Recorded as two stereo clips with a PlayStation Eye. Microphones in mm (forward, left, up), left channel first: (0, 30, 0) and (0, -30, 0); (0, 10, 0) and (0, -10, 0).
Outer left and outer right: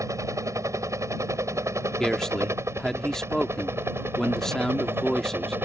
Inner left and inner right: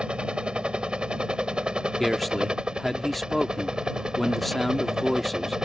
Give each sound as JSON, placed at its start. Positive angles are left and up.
{"t": 0.0, "sound": "a helicopter", "side_deg": -55}
{"t": 2.0, "sound": "a man speaking", "side_deg": 5}